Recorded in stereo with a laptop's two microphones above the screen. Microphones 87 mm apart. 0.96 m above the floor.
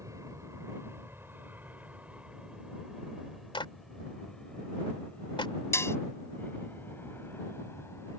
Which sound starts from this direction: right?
An aircraft, at 0.0 s.